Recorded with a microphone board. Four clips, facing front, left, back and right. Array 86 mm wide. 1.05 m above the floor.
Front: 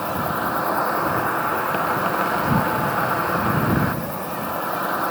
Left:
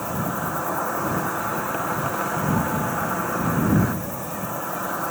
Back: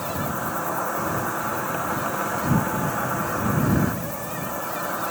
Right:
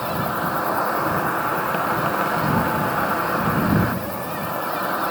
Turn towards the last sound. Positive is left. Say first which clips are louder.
# right 3 dB, front 4 dB
turn(degrees=-35)